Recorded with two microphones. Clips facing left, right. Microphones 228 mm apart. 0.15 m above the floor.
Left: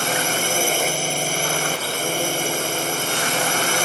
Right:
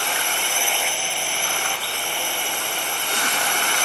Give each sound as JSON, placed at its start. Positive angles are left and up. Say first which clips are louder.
{"t": 0.0, "sound": "a drone", "louder": "left 7 dB", "side_deg": 45}